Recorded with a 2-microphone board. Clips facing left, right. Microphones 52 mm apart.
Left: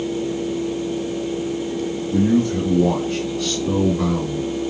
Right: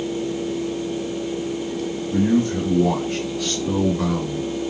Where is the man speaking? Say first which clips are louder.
Left 1 dB; 35° right (ahead or behind), 1.6 m; by 4.5 s 15° left (ahead or behind), 1.4 m.